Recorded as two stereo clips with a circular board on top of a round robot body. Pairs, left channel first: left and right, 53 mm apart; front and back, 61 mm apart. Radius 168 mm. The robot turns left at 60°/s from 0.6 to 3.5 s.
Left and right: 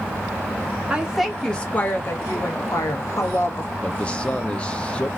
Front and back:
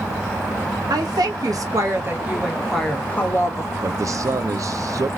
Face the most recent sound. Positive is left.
turn(degrees=155)